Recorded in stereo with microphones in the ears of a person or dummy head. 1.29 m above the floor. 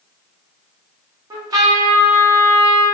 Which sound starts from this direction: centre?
A trumpet, at 1.3 s.